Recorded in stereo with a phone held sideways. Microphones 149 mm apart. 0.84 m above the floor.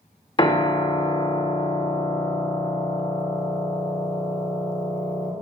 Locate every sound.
0.4 s a piano: 30° left (ahead or behind), 0.7 m